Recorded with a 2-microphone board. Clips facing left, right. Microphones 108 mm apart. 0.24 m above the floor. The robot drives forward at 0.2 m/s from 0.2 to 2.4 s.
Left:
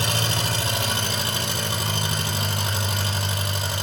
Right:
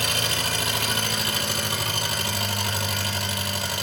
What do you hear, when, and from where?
0.0 s an engine running: 30° left (ahead or behind), 3.5 m; by 3.8 s 25° left (ahead or behind), 3.5 m